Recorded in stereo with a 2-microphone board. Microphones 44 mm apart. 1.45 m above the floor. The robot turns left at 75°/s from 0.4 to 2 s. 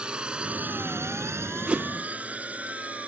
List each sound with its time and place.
0.0 s a drone: 20° right (ahead or behind); by 3.1 s 30° right (ahead or behind)
1.7 s a whoosh: 30° right (ahead or behind)